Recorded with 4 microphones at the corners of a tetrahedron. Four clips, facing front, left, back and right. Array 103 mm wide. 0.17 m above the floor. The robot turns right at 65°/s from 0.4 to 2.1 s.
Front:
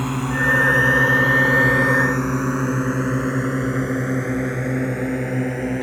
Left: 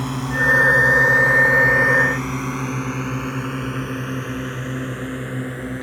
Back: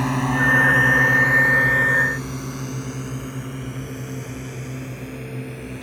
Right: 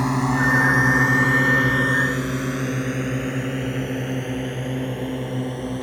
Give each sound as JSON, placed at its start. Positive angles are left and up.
{"t": 0.0, "sound": "a drone", "azimuth_deg": -110}